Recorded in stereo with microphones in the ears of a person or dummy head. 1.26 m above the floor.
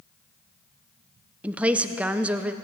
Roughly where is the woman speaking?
Centre.